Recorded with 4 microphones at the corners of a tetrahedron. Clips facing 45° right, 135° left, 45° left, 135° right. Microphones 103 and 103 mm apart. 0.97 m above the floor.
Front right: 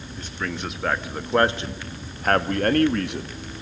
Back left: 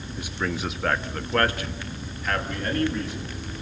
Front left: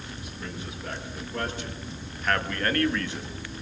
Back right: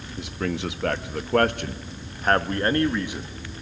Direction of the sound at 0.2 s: 145° right.